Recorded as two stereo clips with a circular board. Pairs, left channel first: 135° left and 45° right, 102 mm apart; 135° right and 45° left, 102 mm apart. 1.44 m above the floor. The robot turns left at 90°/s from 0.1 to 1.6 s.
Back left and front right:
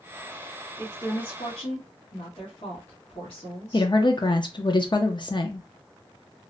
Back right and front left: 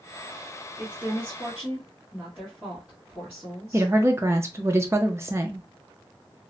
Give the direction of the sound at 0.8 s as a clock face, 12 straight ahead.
5 o'clock.